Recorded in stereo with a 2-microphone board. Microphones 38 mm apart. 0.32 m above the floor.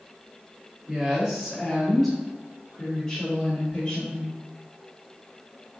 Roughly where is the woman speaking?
Centre.